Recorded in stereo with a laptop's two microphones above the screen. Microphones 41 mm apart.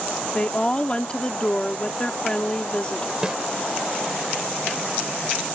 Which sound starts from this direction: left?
A woman speaking, at 0.3 s.